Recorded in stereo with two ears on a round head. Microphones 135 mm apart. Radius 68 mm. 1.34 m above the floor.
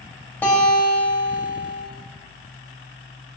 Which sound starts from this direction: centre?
A guitar, at 0.4 s.